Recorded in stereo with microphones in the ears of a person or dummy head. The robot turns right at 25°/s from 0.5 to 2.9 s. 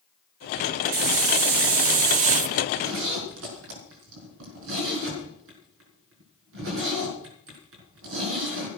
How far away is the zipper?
About 4.5 m.